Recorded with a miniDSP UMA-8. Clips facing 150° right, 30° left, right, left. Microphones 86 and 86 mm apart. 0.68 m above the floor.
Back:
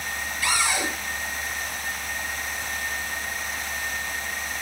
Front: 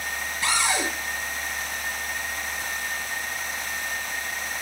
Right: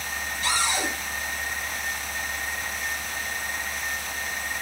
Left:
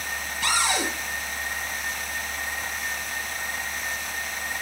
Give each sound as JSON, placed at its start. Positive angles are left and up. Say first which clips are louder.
{"t": 0.4, "sound": "a cupboard door", "louder": "even, left 2 dB", "azimuth_deg": 95, "distance_m": 9.5}